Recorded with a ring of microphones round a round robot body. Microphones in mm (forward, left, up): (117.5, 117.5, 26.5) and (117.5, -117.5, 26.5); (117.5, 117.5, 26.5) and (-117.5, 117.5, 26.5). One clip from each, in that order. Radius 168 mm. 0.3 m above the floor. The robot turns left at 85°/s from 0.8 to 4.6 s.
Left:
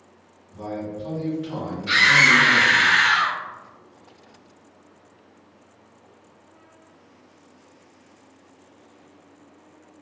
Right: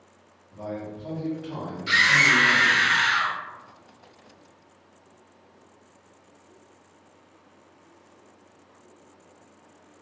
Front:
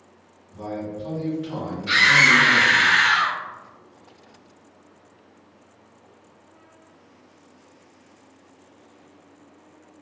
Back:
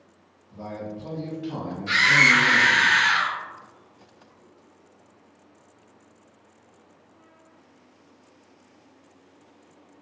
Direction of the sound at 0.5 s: 165° left.